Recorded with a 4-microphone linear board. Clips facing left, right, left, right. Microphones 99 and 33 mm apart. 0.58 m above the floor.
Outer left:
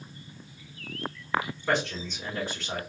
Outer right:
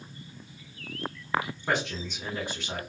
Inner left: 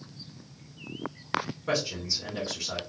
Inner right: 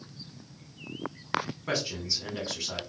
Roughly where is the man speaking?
Centre.